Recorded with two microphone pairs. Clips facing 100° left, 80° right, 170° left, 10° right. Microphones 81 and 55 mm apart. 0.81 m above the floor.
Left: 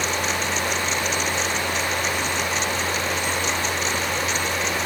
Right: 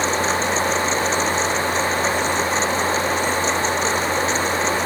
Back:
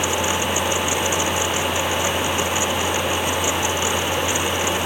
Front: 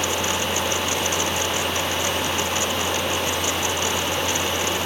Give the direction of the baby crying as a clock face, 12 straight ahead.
No baby crying in this recording.